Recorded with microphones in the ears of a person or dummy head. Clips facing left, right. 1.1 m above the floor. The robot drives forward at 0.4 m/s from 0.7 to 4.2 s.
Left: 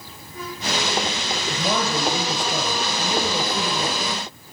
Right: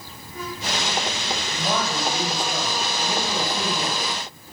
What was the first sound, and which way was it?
A man speaking, 90° left.